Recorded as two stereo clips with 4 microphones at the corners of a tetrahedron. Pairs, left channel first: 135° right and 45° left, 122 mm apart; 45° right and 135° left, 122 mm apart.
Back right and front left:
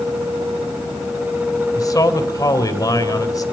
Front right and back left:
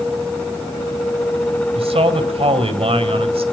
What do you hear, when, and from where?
1.8 s a man speaking: 165° left, 3 m